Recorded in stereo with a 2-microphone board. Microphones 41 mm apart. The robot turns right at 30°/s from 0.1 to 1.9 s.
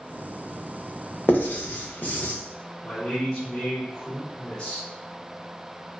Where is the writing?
55° left (ahead or behind), 0.6 m; by 2.3 s 45° left (ahead or behind), 0.6 m.